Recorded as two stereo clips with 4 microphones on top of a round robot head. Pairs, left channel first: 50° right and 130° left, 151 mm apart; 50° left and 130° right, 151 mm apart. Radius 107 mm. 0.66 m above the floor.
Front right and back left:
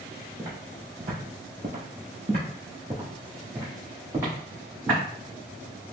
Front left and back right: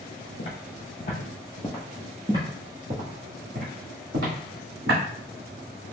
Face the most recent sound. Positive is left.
turn(degrees=-150)